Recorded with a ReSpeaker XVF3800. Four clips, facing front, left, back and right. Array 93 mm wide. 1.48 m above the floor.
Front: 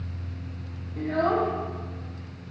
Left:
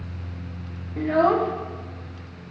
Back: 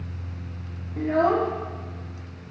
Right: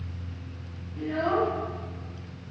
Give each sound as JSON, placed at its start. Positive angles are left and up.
{"t": 1.0, "sound": "a child speaking", "azimuth_deg": 105, "distance_m": 0.7}